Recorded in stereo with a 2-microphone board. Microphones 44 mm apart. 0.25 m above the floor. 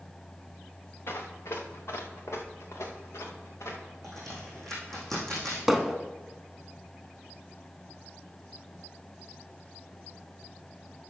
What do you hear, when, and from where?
1.1 s running footsteps: 65° left (ahead or behind), 1.7 m; by 3.9 s 85° left, 3 m
4.0 s a crack: 10° left (ahead or behind), 4 m
5.7 s hammering: centre (ahead or behind), 0.9 m